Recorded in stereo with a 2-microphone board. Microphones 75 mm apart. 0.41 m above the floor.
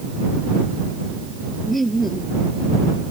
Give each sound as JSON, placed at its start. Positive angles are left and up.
{"t": 1.6, "sound": "laughter", "side_deg": 0}